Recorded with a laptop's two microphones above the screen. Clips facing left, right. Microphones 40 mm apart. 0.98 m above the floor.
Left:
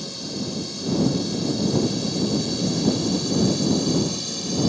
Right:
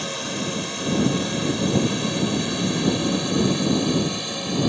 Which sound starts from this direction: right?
A drone, at 0.0 s.